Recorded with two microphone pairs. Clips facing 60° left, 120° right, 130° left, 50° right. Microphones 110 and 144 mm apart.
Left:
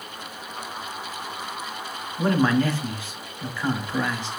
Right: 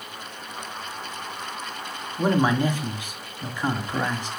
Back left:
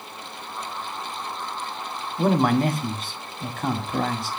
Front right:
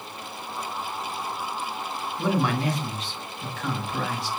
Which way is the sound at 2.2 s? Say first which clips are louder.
Left 1 dB, back left 5 dB; 165° left.